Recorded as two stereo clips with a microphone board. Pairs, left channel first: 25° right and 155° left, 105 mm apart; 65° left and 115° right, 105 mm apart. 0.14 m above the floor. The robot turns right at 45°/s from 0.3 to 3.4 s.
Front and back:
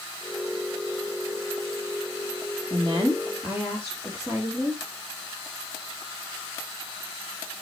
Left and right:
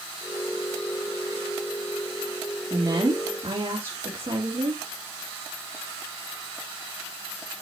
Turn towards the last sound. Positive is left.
turn(degrees=-140)